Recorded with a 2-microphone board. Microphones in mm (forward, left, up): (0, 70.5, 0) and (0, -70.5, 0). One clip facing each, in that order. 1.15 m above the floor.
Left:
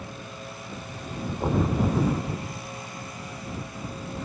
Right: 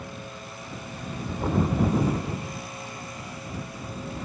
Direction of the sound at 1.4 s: 15° left (ahead or behind).